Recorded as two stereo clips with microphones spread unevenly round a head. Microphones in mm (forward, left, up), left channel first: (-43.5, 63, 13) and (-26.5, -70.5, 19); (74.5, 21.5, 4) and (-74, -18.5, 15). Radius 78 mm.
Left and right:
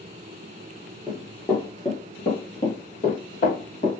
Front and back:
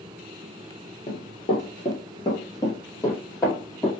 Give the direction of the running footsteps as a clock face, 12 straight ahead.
12 o'clock.